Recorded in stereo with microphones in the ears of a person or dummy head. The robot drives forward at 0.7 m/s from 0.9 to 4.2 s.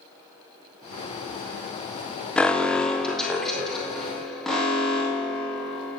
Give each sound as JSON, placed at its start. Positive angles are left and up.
{"t": 2.4, "sound": "an alarm", "side_deg": 5, "distance_m": 0.5}